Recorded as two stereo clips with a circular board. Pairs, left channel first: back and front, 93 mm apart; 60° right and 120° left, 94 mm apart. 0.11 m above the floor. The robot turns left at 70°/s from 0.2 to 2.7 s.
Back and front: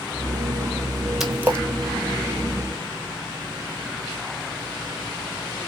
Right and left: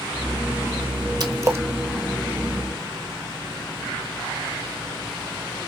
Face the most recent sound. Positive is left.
turn(degrees=-20)